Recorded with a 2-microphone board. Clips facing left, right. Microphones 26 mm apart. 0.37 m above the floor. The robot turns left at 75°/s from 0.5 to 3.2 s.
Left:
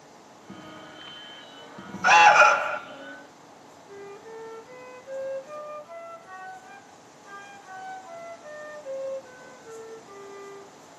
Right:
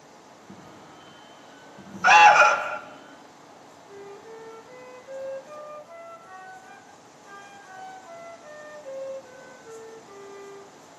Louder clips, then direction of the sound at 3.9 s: Left 1 dB; 10° left (ahead or behind).